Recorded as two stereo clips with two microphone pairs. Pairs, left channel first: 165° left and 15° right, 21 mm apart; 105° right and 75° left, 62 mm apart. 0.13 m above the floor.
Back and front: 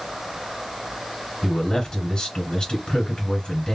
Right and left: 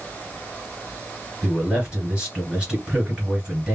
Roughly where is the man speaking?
Behind left.